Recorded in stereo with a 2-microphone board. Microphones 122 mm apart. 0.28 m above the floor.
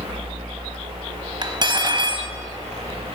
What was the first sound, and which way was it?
Cutlery clinking, 40° right (ahead or behind).